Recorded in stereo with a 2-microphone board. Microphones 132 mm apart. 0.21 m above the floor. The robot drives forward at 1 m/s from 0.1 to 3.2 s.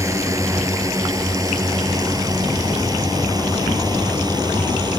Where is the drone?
25° right (ahead or behind); by 5.0 s 30° right (ahead or behind).